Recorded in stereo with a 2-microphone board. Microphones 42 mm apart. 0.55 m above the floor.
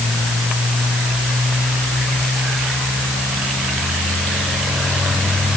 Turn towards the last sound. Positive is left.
No sound to turn to.